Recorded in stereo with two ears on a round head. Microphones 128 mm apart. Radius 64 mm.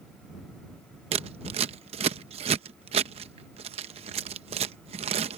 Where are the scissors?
45° right (ahead or behind).